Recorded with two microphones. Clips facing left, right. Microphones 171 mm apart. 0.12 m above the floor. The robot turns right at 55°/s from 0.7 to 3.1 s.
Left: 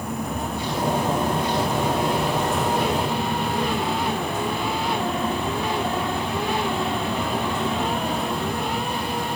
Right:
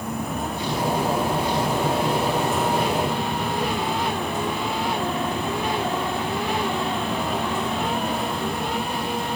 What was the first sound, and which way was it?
Only background noise.